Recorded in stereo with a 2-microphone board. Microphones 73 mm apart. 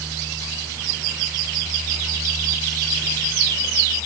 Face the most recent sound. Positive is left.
No sound to turn to.